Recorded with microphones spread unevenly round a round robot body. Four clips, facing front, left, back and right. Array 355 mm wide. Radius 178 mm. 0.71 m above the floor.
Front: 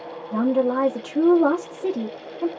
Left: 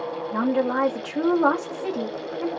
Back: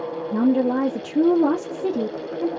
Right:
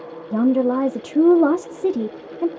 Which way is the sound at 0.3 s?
120° right.